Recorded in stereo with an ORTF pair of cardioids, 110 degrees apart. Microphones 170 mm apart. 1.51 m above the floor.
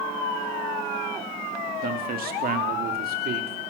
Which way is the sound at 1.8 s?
55° right.